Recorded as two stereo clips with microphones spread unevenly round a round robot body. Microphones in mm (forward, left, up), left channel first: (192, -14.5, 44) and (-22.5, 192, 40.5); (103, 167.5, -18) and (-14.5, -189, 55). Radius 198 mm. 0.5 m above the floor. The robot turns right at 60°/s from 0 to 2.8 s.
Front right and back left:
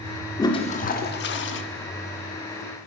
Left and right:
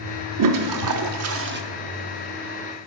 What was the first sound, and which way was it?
A toilet flushing, 115° right.